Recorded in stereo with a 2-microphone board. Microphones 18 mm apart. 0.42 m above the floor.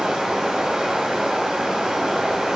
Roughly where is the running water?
Right.